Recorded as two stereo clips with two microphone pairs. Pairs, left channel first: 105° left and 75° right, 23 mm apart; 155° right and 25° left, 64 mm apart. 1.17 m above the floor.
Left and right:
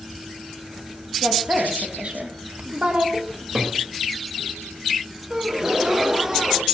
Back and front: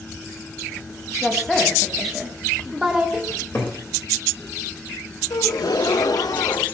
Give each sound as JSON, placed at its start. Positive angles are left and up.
{"t": 1.2, "sound": "a woman speaking", "azimuth_deg": -75, "distance_m": 3.0}
{"t": 3.3, "sound": "a cupboard door", "azimuth_deg": -105, "distance_m": 4.0}
{"t": 5.3, "sound": "a gasp", "azimuth_deg": -145, "distance_m": 0.9}